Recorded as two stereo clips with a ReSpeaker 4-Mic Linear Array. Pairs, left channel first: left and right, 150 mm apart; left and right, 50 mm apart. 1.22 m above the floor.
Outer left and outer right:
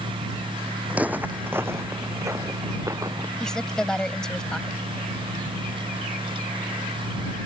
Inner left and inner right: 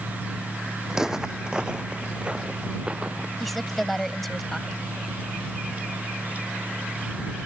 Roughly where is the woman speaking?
Centre.